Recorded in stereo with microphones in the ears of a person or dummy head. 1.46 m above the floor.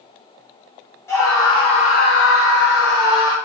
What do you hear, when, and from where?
1.1 s a scream: 20° left (ahead or behind), 0.9 m; by 3.4 s 35° left (ahead or behind), 0.9 m